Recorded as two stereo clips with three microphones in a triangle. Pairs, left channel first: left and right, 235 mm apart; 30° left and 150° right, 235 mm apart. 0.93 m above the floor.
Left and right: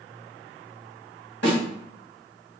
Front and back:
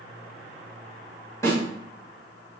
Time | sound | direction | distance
1.4 | a snare drum | 105° left | 2.5 m